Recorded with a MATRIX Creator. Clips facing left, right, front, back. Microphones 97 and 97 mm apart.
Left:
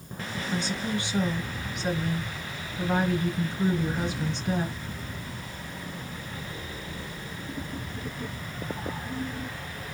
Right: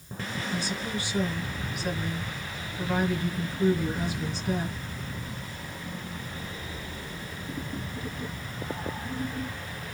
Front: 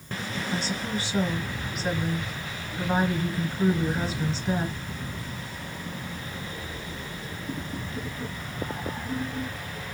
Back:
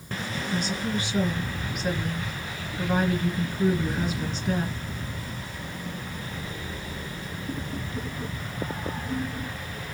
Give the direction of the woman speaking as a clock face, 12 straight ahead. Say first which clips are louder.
Left 4 dB, back 2 dB; 11 o'clock.